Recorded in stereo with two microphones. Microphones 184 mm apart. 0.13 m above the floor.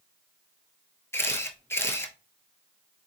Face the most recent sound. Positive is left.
turn(degrees=15)  # may be behind; listen again after turning